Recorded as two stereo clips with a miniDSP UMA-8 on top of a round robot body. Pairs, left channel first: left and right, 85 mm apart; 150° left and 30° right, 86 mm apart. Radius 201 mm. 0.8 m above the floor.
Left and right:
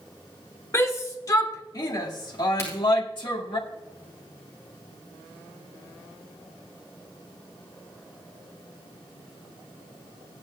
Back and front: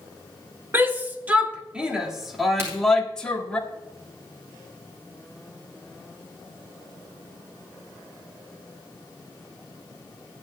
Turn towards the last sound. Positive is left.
turn(degrees=30)